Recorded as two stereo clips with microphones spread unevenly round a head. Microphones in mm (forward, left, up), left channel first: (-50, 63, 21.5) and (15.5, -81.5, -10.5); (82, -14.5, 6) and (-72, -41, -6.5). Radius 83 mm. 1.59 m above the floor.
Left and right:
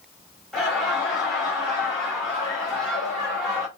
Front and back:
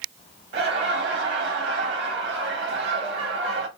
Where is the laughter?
155° right, 1.7 m.